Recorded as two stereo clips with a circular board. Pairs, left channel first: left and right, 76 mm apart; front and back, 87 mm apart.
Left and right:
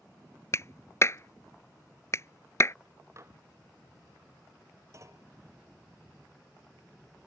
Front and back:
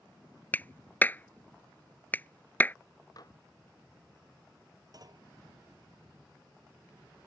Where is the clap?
60° left.